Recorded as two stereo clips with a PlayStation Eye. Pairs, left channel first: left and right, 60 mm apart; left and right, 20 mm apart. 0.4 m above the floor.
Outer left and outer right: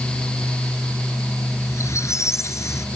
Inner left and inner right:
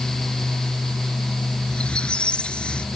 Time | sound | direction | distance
1.7 | a squeak | 55° left (ahead or behind) | ?